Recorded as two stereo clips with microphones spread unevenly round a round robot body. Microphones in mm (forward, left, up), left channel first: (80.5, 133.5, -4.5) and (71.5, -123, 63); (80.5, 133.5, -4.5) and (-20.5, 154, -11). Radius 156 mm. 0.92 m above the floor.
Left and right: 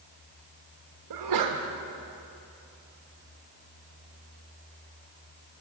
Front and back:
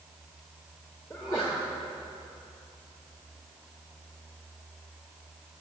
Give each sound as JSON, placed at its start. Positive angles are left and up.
{"t": 1.1, "sound": "a sneeze", "azimuth_deg": -90, "distance_m": 1.1}